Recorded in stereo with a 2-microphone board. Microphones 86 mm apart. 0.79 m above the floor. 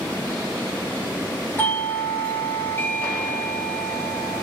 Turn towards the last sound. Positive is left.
turn(degrees=20)  # may be behind; listen again after turning